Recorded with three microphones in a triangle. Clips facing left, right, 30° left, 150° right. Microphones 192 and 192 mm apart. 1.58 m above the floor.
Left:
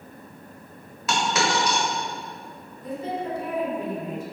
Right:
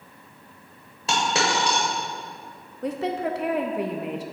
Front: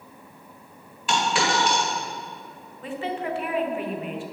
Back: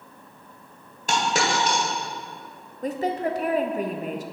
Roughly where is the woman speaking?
Right.